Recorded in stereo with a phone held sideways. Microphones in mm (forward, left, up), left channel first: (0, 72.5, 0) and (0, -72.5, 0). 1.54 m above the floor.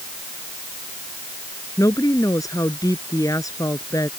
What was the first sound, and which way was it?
A woman speaking, 25° left (ahead or behind).